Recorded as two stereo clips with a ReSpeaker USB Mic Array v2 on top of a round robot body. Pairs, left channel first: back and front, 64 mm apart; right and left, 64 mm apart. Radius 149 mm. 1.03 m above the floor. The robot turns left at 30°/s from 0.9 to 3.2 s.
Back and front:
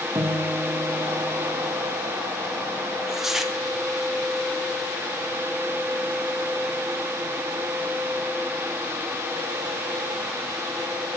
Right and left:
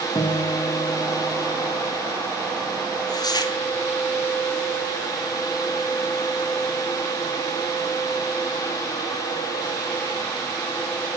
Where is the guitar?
50° right, 1.8 m; by 1.8 s 75° right, 1.8 m.